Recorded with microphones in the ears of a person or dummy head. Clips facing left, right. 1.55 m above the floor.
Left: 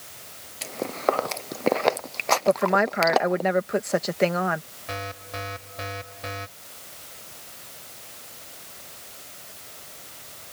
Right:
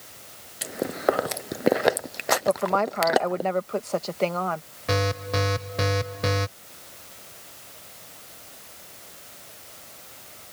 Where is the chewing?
20° right (ahead or behind).